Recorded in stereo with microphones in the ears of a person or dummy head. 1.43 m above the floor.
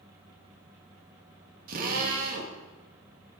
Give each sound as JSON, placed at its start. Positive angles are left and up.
{"t": 1.7, "sound": "a drill", "side_deg": -50, "distance_m": 2.5}